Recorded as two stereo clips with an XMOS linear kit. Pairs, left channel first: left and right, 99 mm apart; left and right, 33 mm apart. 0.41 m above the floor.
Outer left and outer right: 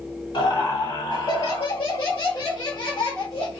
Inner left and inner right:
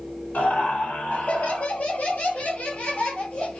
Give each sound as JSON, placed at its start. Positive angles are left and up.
{"t": 0.3, "sound": "laughter", "side_deg": 55, "distance_m": 2.5}